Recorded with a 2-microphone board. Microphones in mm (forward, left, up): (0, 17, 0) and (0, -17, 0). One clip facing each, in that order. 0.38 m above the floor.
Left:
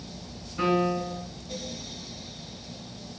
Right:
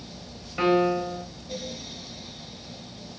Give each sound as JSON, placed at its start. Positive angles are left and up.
{"t": 0.6, "sound": "a piano", "side_deg": -50, "distance_m": 1.8}